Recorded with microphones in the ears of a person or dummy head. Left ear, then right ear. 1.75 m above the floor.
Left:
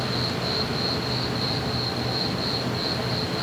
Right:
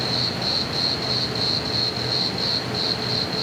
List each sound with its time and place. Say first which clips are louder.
0.0 s an insect: right 3 dB; 65° right (ahead or behind), 1.1 m